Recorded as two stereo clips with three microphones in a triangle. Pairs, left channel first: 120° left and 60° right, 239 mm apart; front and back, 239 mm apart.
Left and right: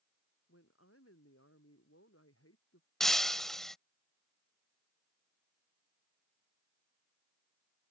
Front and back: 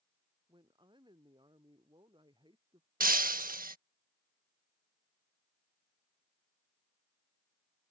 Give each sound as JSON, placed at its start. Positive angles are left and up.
{"t": 0.5, "sound": "a woman speaking", "azimuth_deg": 110}
{"t": 3.0, "sound": "breaking glass", "azimuth_deg": -150}